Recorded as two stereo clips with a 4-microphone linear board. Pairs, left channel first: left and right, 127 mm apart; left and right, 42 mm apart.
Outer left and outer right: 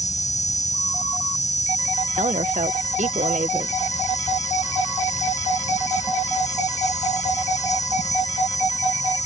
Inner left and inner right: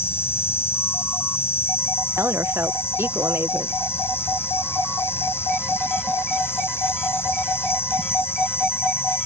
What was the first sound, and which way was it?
An insect, 65° left (ahead or behind).